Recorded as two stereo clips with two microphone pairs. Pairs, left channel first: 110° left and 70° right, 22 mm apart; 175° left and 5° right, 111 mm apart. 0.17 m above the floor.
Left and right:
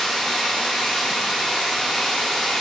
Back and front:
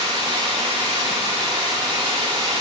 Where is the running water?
40° left, 8 m.